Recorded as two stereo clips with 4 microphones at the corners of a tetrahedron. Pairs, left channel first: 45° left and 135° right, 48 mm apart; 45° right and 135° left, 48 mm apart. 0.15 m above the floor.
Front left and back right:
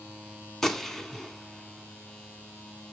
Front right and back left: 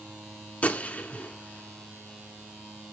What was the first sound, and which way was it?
A gunshot, 30° right.